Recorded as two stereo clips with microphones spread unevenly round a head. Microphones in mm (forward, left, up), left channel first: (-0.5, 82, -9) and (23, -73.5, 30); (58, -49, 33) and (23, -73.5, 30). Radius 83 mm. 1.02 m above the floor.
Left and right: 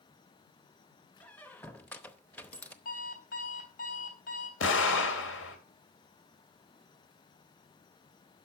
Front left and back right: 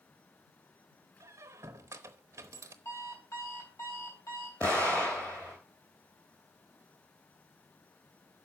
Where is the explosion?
110° left, 2.5 m.